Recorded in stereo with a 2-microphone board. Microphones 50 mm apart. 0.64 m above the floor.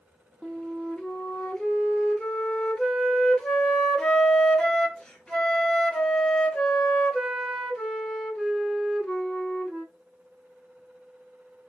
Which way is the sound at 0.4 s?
15° left (ahead or behind).